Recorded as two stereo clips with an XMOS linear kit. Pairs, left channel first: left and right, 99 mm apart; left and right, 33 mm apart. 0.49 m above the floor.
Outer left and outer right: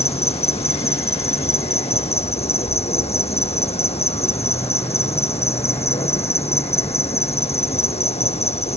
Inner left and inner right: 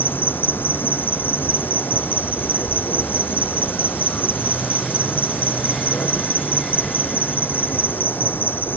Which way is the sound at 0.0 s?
75° left (ahead or behind).